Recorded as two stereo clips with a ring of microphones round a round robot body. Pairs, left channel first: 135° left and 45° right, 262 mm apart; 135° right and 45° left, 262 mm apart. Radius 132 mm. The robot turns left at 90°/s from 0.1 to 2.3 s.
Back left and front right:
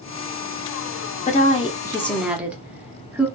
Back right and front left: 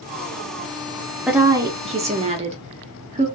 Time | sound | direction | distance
1.3 | a woman speaking | 130° left | 0.6 m